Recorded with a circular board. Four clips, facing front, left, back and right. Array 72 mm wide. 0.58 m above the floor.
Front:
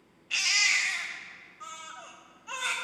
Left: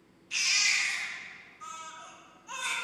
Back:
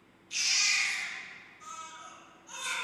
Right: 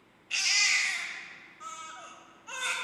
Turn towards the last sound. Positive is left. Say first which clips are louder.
# right 1 dB, front 5 dB
turn(degrees=-35)